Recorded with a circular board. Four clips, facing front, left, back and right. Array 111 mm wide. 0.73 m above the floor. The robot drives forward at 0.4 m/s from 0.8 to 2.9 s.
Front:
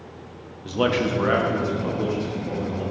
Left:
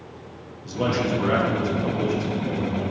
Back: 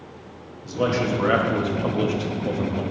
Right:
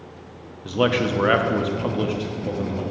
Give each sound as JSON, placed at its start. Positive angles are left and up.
{"t": 0.7, "sound": "a man speaking", "azimuth_deg": -60, "distance_m": 0.6}